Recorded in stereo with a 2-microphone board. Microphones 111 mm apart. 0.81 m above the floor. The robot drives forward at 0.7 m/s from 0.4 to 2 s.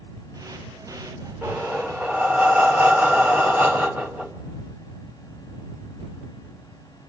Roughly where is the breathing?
Centre.